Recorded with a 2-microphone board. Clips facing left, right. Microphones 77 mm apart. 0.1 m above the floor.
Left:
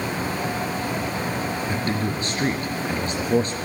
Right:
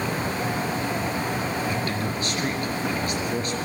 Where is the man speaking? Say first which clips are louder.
Left 2 dB; 30° left (ahead or behind), 1.4 m.